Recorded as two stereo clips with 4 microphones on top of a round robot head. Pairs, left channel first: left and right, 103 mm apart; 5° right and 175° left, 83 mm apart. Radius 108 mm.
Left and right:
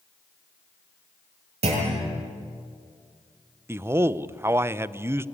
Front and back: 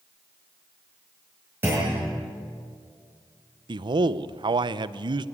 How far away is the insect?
I don't hear an insect.